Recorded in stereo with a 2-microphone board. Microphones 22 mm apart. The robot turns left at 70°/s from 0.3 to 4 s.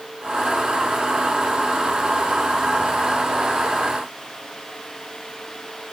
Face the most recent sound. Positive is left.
No sound to turn to.